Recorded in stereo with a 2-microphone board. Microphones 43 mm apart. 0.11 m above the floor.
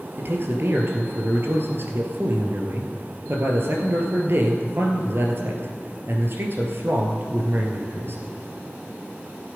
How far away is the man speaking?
About 2 m.